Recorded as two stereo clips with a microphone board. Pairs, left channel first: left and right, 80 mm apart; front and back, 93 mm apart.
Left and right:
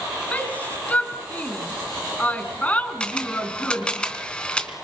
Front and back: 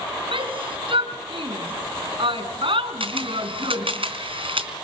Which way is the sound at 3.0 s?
170° left.